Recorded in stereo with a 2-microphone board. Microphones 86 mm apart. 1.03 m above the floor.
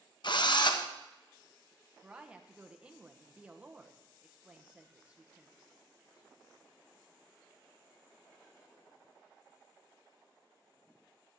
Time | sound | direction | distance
0.2 | a drill | 60° left (ahead or behind) | 0.7 m
2.0 | a woman speaking | 15° right (ahead or behind) | 0.8 m